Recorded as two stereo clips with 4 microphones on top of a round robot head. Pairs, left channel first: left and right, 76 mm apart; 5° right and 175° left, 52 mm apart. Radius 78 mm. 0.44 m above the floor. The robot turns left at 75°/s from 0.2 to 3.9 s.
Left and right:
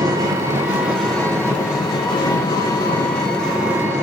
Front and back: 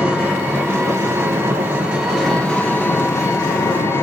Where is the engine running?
115° right, 6 m; by 4.0 s 30° right, 6 m.